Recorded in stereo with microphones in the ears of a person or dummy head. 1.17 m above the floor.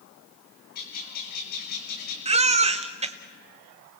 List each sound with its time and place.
0.8 s a bird: 50° left (ahead or behind), 4.5 m
2.2 s a baby crying: 30° right (ahead or behind), 1.0 m